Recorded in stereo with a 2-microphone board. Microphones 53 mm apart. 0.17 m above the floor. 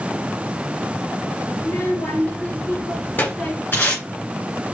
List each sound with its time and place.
1.6 s a child speaking: 60° left (ahead or behind), 2.5 m; by 3.6 s 30° left (ahead or behind), 1.3 m
3.7 s tape being pulled: 45° left (ahead or behind), 2.5 m